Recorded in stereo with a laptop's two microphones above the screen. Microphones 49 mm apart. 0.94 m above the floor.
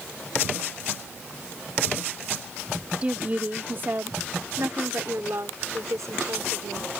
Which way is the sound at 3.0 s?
25° right (ahead or behind).